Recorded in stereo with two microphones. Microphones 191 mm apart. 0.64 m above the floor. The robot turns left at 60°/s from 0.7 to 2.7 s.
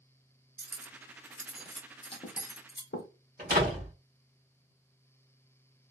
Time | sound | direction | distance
0.6 | cutlery clinking | 55° right (ahead or behind) | 0.7 m
3.4 | a door slam | 50° right (ahead or behind) | 1.8 m